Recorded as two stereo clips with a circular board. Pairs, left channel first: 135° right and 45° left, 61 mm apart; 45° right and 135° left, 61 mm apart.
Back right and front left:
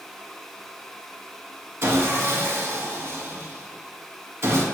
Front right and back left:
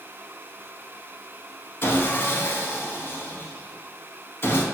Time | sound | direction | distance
1.8 | sawing | 5° left | 0.5 m